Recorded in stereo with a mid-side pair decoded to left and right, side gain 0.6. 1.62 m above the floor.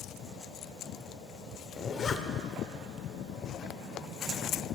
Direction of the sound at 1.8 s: 40° left.